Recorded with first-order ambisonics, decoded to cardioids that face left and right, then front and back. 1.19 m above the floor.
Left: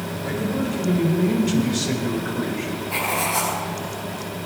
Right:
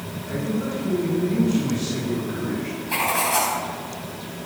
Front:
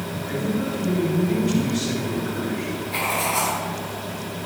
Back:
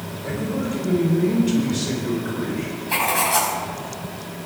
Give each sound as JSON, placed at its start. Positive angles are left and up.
{"t": 0.2, "sound": "a man speaking", "azimuth_deg": 130, "distance_m": 6.0}
{"t": 2.9, "sound": "writing", "azimuth_deg": -165, "distance_m": 5.5}